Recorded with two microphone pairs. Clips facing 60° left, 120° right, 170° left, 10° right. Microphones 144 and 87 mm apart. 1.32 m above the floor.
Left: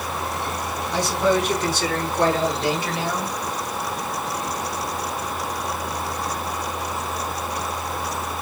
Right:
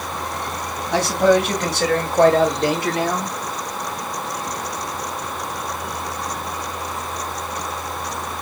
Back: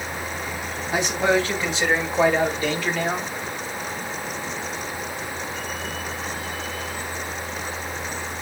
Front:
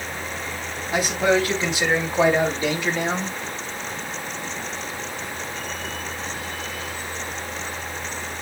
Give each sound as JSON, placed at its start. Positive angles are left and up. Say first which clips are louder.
{"t": 0.9, "sound": "a man speaking", "louder": "right 5 dB, front 1 dB", "azimuth_deg": -95, "distance_m": 3.5}